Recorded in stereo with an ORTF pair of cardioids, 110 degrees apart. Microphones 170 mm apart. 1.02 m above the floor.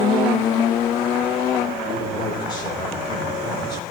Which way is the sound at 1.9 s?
25° left.